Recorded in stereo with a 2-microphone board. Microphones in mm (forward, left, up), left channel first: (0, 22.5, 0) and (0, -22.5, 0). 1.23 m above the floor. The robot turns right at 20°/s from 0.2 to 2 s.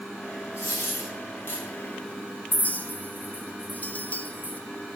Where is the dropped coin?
75° left (ahead or behind), 4 m; by 1.6 s 55° left (ahead or behind), 4 m.